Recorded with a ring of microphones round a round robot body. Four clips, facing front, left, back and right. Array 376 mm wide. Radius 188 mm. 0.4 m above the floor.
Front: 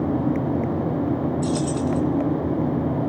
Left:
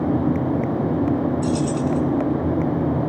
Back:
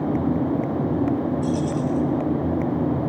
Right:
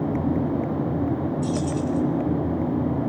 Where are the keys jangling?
20° left, 3.5 m.